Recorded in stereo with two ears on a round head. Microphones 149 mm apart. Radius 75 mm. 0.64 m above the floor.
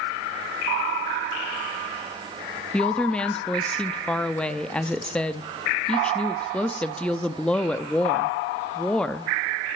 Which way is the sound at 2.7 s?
5° left (ahead or behind).